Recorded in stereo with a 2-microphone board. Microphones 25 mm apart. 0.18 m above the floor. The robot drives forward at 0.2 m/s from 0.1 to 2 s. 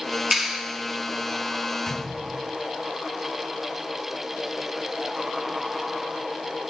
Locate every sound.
0.3 s a clap: 15° right (ahead or behind), 1.7 m
1.9 s a gunshot: 20° left (ahead or behind), 1.3 m